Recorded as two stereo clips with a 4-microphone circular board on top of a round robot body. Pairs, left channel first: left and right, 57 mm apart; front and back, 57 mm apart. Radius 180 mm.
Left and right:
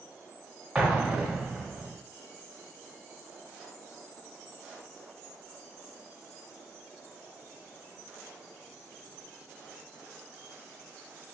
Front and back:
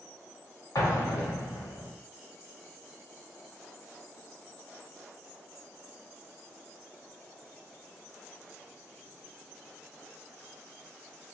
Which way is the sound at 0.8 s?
15° right.